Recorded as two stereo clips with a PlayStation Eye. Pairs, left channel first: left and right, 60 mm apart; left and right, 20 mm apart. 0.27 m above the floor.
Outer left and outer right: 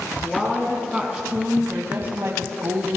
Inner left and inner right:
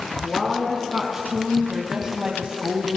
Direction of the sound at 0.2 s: Centre (ahead or behind).